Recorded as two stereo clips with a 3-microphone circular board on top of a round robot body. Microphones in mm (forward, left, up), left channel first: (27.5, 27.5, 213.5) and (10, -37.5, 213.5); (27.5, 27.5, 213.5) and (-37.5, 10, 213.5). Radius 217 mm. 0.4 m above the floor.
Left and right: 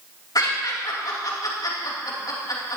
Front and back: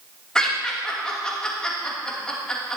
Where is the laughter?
95° left, 4 m.